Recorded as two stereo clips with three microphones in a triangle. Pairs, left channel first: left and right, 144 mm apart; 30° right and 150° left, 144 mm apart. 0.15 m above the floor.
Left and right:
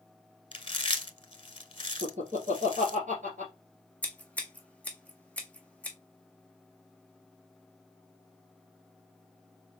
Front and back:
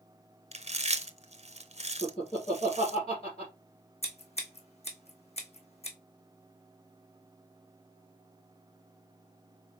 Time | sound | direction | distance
0.5 | chewing | 130° left | 0.6 m
2.0 | laughter | 75° right | 2.5 m
4.0 | scissors | 10° left | 1.2 m